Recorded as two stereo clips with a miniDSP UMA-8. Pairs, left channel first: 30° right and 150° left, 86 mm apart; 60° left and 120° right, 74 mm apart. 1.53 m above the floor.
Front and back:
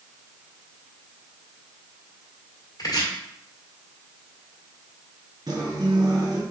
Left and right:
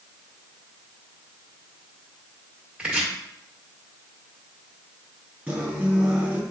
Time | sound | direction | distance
2.8 | chopping | 50° right | 1.6 m
5.5 | a guitar | 175° left | 2.5 m